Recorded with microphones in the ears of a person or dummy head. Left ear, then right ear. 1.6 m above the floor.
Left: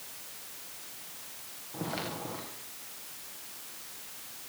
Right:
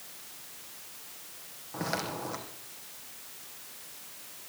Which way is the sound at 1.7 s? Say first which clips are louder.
Right 3 dB; 65° right (ahead or behind).